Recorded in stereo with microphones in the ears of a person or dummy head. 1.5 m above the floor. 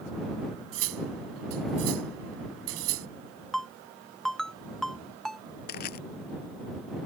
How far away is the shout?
No shout in this recording.